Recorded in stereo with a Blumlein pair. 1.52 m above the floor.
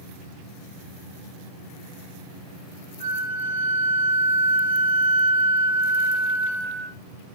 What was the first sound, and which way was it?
A flute, 70° right.